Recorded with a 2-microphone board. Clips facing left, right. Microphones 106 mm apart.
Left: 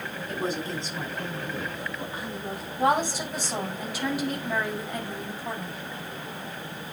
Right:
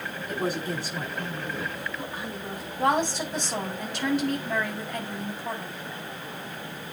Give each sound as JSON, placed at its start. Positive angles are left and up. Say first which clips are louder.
{"t": 0.3, "sound": "a man speaking", "louder": "right 1 dB", "side_deg": -10, "distance_m": 5.5}
{"t": 2.8, "sound": "a woman speaking", "louder": "even", "side_deg": 5, "distance_m": 5.5}